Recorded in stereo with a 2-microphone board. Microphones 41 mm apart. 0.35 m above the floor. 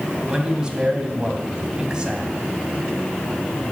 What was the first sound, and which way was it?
A man speaking, 20° right (ahead or behind).